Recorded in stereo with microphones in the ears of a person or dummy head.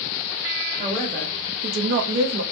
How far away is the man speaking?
About 0.9 m.